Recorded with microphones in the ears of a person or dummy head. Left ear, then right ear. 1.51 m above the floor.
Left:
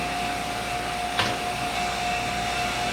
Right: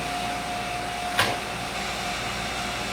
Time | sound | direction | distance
1.1 | a gunshot | 10° right (ahead or behind) | 2.5 m